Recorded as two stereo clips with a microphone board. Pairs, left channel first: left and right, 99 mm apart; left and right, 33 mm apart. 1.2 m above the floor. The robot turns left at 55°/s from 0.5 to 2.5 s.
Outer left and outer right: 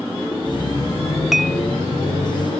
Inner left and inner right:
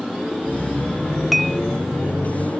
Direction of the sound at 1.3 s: 5° right (ahead or behind).